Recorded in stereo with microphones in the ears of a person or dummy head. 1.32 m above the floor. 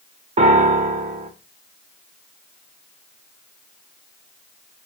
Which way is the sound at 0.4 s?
30° right (ahead or behind).